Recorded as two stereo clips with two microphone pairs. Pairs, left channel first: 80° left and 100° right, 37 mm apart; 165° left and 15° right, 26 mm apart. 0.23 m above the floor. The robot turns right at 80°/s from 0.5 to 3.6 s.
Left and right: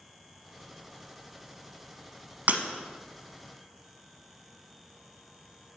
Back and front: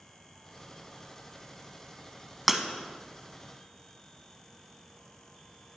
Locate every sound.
2.5 s breaking glass: 95° right, 0.9 m; by 2.6 s 85° right, 0.9 m